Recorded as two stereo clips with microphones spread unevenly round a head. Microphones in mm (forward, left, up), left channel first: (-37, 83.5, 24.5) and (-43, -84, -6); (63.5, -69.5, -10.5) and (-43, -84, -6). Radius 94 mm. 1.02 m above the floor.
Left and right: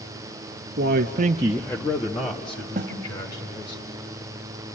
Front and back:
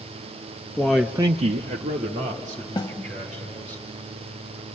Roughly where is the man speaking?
Right.